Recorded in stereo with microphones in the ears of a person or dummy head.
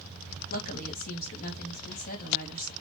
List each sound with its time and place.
0.5 s a woman speaking: 45° left (ahead or behind), 1.9 m